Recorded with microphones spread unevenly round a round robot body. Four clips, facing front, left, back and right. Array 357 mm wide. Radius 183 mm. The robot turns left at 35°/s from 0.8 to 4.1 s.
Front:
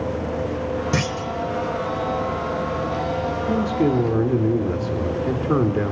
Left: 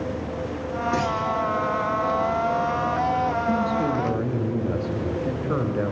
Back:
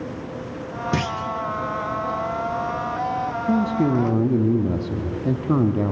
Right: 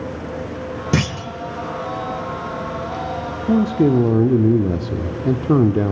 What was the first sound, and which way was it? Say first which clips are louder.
A clunk: right 2 dB, front 1 dB; 90° right.